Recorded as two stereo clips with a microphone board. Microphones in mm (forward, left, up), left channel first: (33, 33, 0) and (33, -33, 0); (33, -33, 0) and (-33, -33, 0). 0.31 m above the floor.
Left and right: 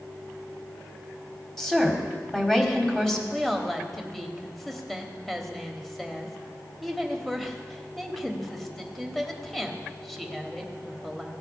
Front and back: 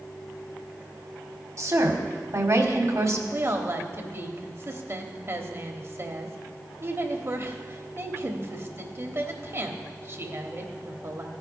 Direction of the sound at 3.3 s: Straight behind.